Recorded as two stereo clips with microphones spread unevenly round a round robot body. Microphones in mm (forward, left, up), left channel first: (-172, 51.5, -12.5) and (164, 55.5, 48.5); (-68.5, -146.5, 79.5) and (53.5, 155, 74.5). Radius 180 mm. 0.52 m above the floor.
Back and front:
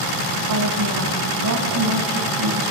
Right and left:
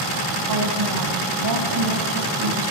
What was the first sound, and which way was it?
A woman speaking, 40° left.